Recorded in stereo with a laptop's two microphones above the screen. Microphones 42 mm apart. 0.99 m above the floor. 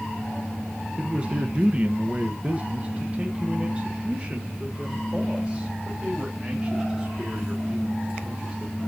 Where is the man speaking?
25° right (ahead or behind), 0.7 m; by 8.8 s 20° right (ahead or behind), 4 m.